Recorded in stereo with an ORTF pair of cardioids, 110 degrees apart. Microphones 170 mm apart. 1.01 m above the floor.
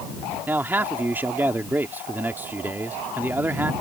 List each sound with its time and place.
0.5 s a man speaking: 10° right